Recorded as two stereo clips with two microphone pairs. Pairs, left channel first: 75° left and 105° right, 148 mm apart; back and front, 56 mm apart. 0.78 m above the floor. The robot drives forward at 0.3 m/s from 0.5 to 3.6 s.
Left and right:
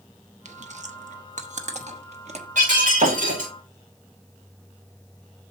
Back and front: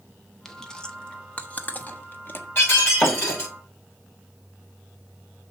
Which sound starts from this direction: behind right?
Breaking glass, at 2.5 s.